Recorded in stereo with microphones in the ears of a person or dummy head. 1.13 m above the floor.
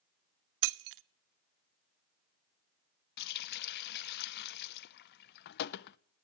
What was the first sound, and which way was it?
Breaking glass, 65° right (ahead or behind).